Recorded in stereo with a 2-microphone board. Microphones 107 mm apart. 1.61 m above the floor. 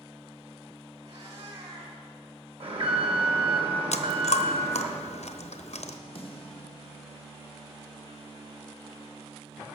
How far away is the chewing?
About 0.8 m.